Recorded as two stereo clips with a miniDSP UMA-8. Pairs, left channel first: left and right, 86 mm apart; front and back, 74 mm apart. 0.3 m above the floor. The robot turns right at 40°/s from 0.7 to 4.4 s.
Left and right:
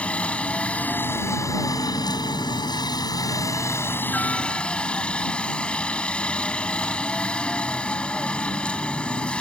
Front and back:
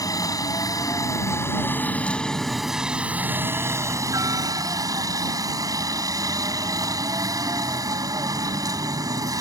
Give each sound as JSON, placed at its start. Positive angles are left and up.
{"t": 0.0, "sound": "a helicopter", "azimuth_deg": 15}